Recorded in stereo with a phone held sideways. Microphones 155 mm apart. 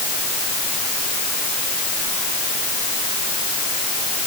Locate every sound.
Only background noise.